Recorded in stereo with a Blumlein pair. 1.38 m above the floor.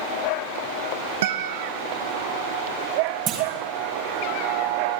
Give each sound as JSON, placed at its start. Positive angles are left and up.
{"t": 1.2, "sound": "a guitar", "azimuth_deg": -55, "distance_m": 1.6}
{"t": 3.3, "sound": "a clunk", "azimuth_deg": -40, "distance_m": 5.5}